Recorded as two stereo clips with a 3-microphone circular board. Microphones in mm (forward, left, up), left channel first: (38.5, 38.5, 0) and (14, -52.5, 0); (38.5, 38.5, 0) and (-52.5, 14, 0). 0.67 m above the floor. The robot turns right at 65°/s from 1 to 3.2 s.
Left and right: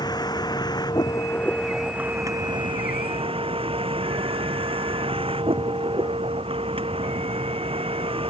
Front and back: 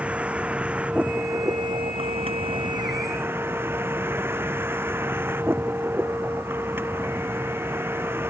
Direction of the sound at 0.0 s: 120° left.